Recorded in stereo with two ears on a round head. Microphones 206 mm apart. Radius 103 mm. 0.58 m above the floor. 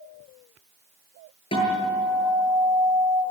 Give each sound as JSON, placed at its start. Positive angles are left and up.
{"t": 1.5, "sound": "a guitar", "side_deg": 25, "distance_m": 8.5}